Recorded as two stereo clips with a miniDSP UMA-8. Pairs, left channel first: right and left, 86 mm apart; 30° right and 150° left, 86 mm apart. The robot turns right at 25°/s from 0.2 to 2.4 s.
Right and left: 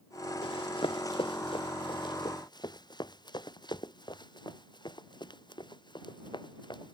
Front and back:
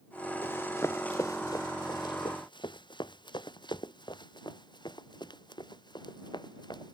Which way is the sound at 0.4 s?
90° right.